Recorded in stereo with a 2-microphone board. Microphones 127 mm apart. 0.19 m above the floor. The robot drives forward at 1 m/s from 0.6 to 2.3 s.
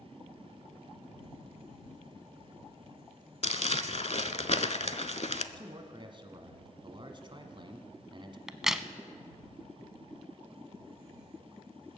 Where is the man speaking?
40° right (ahead or behind), 1.3 m.